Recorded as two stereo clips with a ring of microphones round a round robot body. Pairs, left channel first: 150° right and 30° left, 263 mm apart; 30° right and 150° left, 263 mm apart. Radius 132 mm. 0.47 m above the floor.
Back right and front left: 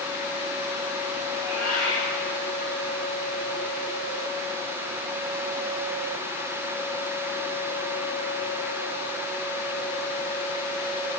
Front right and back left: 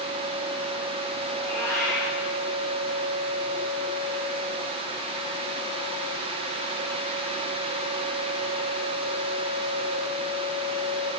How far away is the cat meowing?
About 8 m.